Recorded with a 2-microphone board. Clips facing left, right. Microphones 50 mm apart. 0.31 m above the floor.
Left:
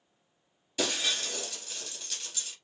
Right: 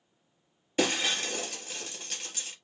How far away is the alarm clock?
No alarm clock in this recording.